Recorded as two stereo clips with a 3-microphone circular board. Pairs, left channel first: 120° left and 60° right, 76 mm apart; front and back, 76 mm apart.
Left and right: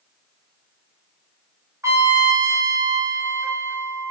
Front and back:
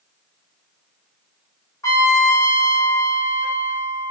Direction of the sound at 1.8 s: 25° right.